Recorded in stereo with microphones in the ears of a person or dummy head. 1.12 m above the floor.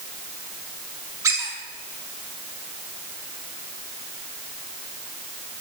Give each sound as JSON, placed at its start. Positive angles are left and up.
{"t": 1.2, "sound": "a squeak", "side_deg": -20, "distance_m": 1.3}